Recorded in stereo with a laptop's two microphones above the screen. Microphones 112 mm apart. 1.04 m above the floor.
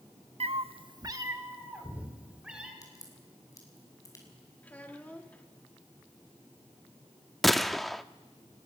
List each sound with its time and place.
0.4 s a cat meowing: 60° right (ahead or behind), 0.6 m; by 2.7 s 10° right (ahead or behind), 2.5 m
2.8 s a crack: 30° left (ahead or behind), 5.5 m
4.6 s a child speaking: 15° left (ahead or behind), 1.5 m
7.4 s a gunshot: centre (ahead or behind), 0.5 m